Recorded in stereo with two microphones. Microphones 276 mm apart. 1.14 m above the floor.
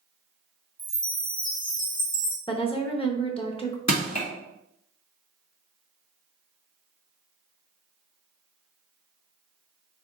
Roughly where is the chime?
Left.